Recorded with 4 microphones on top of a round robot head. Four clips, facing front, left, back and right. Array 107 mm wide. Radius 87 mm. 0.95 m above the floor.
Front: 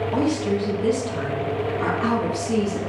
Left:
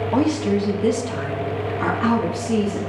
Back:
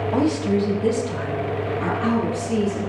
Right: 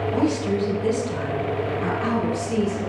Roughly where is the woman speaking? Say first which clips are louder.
Left 4 dB, back 3 dB; left.